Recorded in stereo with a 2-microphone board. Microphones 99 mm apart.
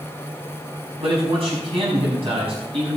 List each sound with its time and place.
1.0 s a man speaking: 70° right (ahead or behind), 5.5 m